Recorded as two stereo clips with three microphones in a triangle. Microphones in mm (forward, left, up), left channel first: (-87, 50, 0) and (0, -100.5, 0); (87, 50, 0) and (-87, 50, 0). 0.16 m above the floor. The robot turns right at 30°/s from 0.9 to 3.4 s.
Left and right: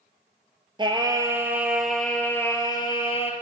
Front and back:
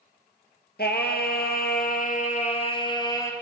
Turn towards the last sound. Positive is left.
turn(degrees=75)